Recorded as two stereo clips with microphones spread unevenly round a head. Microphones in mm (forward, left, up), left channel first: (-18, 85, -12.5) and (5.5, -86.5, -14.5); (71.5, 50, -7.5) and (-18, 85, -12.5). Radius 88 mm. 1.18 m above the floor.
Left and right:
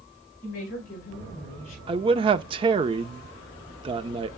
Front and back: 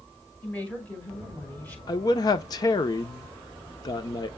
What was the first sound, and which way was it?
A woman speaking, 55° left.